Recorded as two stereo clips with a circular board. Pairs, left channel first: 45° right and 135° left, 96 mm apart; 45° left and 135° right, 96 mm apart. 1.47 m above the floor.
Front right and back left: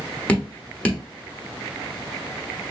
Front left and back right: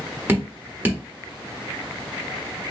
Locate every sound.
0.3 s dripping: 105° right, 1.2 m